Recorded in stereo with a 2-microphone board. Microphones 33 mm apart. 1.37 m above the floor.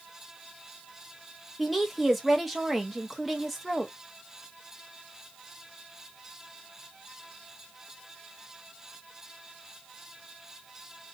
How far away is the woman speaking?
About 0.7 m.